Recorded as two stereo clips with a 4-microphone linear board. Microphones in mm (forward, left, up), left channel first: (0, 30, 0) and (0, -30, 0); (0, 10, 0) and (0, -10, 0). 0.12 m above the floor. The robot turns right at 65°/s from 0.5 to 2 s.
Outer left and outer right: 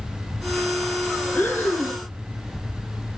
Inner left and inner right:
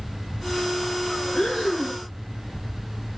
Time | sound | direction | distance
1.4 | breathing | 65° left | 1.7 m